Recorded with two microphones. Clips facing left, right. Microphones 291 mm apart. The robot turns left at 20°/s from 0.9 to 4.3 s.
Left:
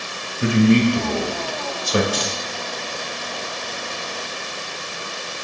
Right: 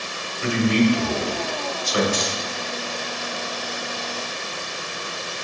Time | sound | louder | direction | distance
0.4 | a man speaking | left 4 dB | 65° left (ahead or behind) | 1.6 m
2.1 | keys jangling | even | 30° right (ahead or behind) | 3 m